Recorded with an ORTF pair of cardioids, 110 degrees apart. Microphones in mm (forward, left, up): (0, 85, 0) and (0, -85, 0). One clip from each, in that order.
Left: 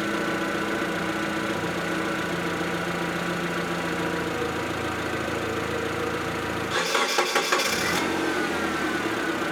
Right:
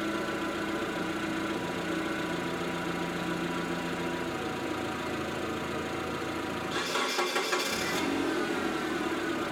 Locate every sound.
0.0 s an engine running: 50° left, 1.2 m